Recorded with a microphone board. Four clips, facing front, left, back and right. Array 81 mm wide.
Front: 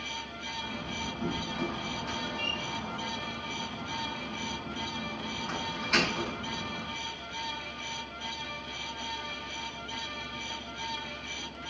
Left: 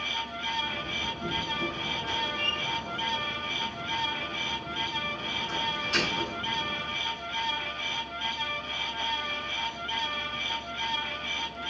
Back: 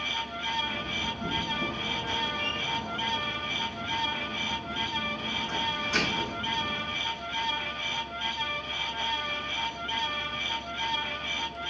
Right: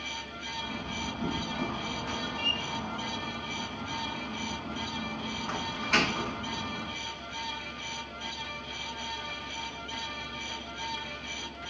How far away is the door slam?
About 8 m.